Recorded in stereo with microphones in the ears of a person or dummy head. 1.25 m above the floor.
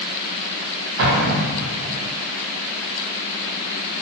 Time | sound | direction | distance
1.0 | an explosion | 65° right (ahead or behind) | 0.7 m